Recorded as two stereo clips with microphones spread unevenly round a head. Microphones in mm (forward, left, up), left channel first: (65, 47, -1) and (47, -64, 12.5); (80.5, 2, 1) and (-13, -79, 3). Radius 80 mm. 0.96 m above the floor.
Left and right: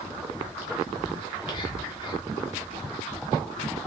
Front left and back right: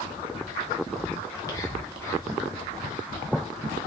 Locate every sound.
1.2 s whispering: 100° left, 0.7 m